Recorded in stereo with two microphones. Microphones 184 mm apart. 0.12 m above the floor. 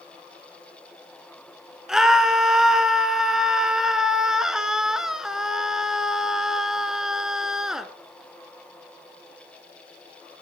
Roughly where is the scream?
Centre.